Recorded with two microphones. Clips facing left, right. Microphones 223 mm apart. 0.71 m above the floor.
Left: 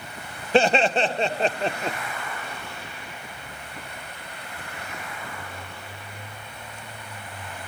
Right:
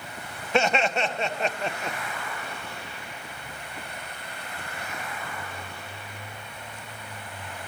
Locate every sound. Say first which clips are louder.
0.5 s laughter: left 5 dB; 30° left (ahead or behind), 0.7 m